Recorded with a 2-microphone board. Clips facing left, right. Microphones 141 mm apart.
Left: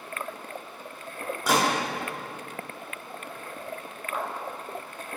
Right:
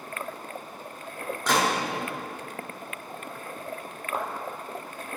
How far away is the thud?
About 1.7 m.